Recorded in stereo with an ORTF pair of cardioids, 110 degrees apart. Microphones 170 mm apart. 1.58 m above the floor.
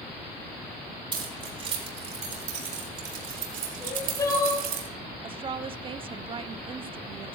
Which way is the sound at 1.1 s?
30° right.